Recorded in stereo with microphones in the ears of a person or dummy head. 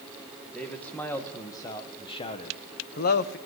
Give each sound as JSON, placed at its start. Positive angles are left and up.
{"t": 0.5, "sound": "a man speaking", "side_deg": 10, "distance_m": 2.0}